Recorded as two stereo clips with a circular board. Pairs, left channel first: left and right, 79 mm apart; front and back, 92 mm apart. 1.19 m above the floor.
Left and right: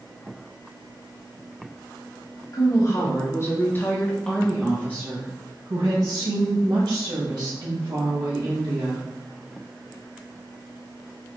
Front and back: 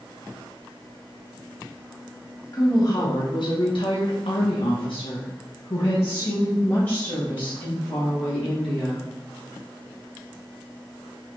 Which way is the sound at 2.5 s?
50° left.